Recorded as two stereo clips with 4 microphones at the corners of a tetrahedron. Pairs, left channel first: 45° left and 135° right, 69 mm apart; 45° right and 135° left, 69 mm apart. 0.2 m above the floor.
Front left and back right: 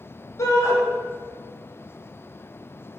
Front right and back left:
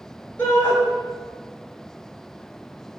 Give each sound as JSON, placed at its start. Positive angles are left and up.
{"t": 0.4, "sound": "a shout", "azimuth_deg": 20, "distance_m": 2.5}